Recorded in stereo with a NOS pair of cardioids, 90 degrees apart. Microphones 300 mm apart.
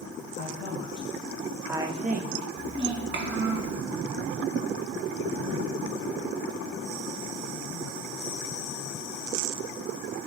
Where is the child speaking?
40° right, 1.2 m.